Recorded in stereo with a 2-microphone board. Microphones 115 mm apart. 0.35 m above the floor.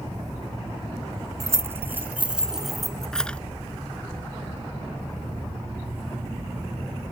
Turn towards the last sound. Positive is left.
turn(degrees=10)  # may be behind; listen again after turning